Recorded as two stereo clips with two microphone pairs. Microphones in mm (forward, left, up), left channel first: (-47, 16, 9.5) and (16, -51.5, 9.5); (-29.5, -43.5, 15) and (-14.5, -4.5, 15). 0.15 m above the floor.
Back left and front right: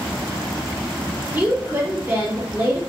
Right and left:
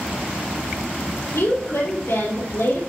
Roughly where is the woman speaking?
Right.